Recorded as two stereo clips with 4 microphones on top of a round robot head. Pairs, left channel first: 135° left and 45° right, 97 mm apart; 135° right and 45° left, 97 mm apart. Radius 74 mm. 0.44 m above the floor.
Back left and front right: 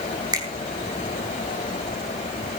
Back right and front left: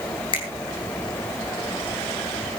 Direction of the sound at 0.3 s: 95° right.